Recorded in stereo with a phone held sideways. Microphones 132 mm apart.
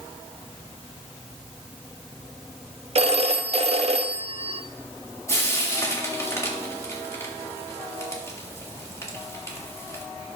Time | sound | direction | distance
3.0 | a phone ringing | 50° right (ahead or behind) | 0.7 m
5.3 | frying | 25° left (ahead or behind) | 2 m